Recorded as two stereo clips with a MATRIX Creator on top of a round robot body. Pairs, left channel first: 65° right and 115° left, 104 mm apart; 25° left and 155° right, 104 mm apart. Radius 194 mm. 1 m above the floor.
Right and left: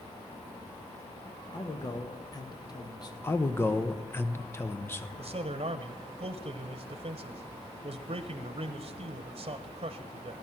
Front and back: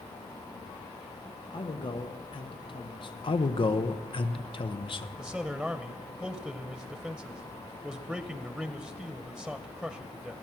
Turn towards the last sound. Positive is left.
turn(degrees=115)